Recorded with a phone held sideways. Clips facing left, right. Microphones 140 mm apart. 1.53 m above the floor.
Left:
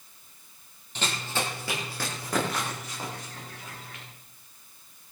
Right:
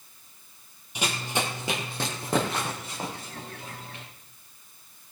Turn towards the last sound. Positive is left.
turn(degrees=-30)  # may be behind; listen again after turning